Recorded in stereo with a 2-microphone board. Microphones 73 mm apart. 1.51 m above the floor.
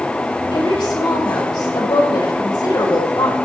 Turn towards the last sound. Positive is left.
turn(degrees=85)